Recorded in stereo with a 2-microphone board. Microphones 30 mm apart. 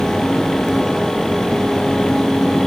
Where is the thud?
I don't hear a thud.